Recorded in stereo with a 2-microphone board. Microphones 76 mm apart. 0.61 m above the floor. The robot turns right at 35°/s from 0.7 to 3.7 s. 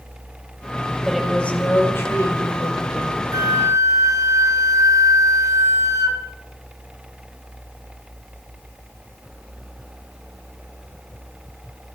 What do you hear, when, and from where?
1.1 s a woman speaking: straight ahead, 3 m; by 3.2 s 75° left, 3 m
3.3 s a flute: 50° right (ahead or behind), 1.6 m